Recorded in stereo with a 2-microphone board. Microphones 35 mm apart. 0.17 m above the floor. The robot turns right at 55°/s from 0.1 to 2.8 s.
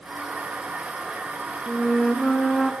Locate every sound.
1.7 s a flute: 105° left, 0.6 m; by 2.7 s 160° left, 0.6 m